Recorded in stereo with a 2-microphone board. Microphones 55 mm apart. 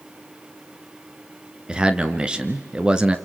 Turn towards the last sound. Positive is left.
turn(degrees=-15)  # may be behind; listen again after turning